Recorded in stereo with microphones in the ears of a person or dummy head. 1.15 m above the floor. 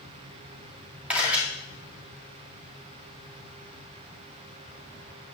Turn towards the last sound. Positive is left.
turn(degrees=-10)  # may be behind; listen again after turning